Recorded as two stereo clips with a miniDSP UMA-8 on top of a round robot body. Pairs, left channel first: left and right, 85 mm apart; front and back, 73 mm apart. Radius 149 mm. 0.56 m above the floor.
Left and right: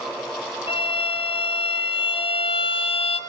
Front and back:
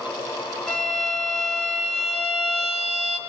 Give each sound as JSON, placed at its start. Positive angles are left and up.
{"t": 0.7, "sound": "a violin", "azimuth_deg": 85, "distance_m": 3.0}